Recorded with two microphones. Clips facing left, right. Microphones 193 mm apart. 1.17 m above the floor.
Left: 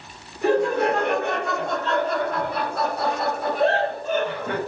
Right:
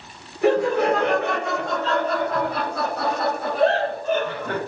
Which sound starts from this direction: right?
Laughter, at 0.4 s.